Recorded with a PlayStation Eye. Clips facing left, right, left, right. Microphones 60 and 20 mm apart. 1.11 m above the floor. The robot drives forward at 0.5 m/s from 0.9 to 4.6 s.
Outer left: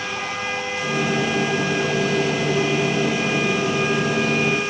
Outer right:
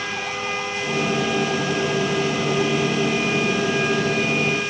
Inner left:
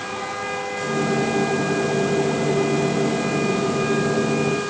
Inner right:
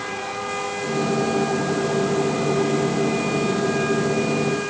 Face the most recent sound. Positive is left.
No sound to turn to.